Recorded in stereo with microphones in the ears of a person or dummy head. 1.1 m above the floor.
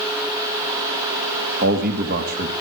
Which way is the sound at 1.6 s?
45° right (ahead or behind).